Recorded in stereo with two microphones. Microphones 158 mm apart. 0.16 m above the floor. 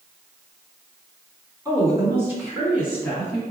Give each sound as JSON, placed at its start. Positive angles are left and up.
{"t": 1.6, "sound": "a woman speaking", "side_deg": -20, "distance_m": 1.6}